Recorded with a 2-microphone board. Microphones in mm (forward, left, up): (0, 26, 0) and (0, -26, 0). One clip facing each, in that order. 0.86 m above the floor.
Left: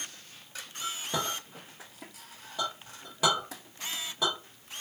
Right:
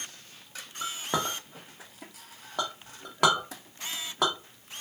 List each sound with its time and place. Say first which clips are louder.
0.8 s a clink: right 3 dB; 60° right (ahead or behind), 0.7 m